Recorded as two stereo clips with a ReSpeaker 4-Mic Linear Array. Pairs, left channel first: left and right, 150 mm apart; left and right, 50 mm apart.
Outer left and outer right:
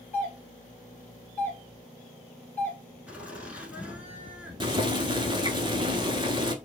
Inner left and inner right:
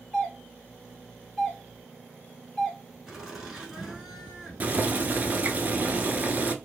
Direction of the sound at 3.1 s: 10° right (ahead or behind).